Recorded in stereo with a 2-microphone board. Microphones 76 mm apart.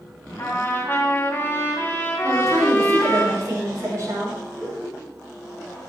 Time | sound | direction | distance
0.4 | a trumpet | 30° left (ahead or behind) | 3 m
2.2 | a woman speaking | 45° right (ahead or behind) | 6.5 m
4.5 | laughter | 60° right (ahead or behind) | 6 m